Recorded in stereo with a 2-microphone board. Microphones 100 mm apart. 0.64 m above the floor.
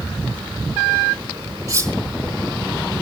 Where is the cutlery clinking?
35° right (ahead or behind), 1.3 m.